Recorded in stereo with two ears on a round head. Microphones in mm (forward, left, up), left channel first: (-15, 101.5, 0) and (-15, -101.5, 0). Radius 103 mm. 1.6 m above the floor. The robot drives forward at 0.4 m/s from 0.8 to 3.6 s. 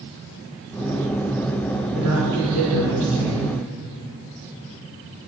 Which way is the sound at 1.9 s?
90° right.